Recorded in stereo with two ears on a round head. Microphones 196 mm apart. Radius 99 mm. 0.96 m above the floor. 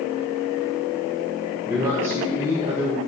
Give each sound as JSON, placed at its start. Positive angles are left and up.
{"t": 1.7, "sound": "a man speaking", "side_deg": -15, "distance_m": 1.0}